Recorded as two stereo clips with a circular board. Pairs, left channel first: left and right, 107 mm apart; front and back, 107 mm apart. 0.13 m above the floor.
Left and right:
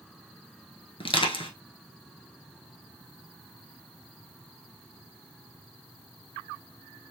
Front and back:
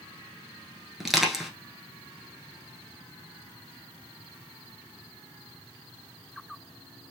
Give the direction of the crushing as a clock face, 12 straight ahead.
9 o'clock.